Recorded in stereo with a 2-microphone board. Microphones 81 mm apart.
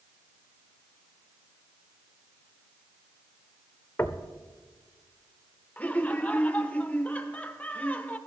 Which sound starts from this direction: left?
Knocking, at 4.0 s.